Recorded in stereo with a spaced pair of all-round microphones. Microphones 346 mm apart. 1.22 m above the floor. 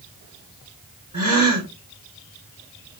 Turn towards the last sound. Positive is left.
turn(degrees=-55)  # may be behind; listen again after turning